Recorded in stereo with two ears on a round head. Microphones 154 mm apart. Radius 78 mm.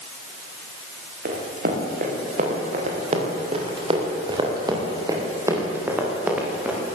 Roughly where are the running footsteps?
Right.